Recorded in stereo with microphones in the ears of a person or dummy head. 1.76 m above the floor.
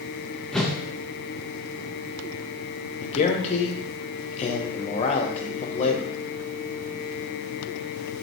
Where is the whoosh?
Centre (ahead or behind), 0.6 m.